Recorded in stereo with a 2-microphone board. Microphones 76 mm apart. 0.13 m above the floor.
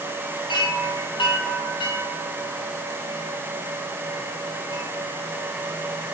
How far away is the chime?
About 2.5 m.